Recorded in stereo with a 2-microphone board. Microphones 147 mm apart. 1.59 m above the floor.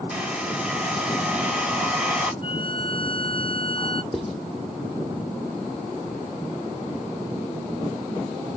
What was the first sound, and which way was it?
A hair dryer, 10° right (ahead or behind).